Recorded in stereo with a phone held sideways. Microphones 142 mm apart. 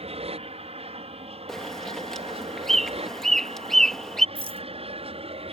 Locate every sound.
0.0 s an aircraft: 50° right (ahead or behind); by 5.5 s 45° right (ahead or behind)
1.5 s a bird: 5° left (ahead or behind)
4.3 s a rattle: 45° right (ahead or behind)